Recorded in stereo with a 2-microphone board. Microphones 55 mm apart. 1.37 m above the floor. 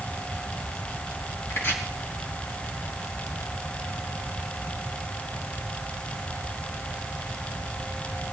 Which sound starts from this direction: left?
Chopping, at 1.5 s.